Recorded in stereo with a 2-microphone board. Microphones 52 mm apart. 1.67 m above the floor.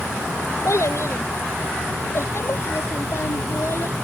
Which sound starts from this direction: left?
A child speaking, at 0.7 s.